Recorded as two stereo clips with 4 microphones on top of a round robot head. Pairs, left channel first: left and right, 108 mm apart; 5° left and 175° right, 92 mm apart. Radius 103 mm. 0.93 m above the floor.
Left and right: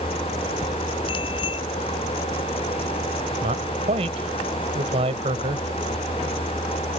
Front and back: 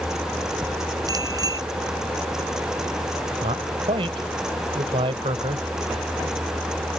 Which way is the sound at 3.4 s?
130° right.